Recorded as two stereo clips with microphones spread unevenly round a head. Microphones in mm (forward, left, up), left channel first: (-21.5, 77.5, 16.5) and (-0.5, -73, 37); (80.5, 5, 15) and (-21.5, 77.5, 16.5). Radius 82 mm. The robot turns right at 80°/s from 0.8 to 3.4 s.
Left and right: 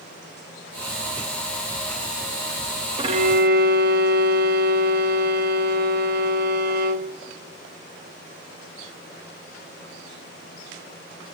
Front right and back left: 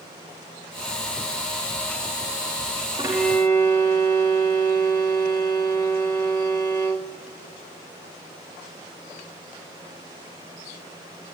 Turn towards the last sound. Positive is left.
turn(degrees=-110)